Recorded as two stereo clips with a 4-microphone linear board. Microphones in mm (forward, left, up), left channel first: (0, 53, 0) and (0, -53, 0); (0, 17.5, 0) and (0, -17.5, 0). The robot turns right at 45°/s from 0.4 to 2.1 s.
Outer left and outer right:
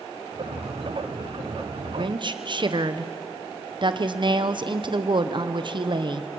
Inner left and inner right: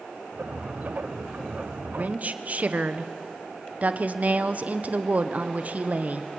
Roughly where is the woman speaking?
Right.